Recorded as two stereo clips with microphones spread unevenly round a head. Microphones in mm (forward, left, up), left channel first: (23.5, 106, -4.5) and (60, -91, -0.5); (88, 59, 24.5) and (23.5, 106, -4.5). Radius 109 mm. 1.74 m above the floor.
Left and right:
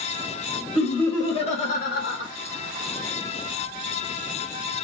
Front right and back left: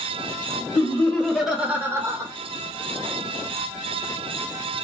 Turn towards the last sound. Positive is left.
turn(degrees=90)